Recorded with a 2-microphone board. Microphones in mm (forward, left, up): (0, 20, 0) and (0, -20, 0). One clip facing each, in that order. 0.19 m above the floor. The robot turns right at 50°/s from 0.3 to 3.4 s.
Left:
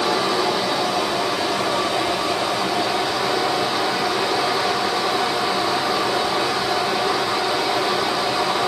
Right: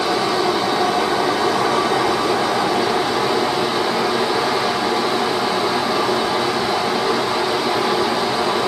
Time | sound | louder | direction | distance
0.0 | running water | right 2 dB | 175° right | 1.3 m